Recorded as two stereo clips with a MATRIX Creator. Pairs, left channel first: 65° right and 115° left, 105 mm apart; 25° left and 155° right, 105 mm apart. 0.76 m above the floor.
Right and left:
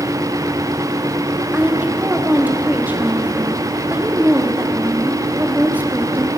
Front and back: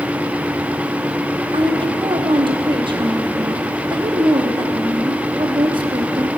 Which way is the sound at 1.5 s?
175° right.